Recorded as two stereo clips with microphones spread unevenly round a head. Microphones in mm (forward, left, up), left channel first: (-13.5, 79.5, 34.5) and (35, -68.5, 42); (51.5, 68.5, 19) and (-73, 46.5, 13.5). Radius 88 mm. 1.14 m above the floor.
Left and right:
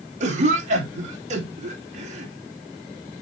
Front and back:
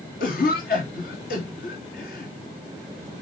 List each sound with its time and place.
0.2 s a cough: 25° right, 3 m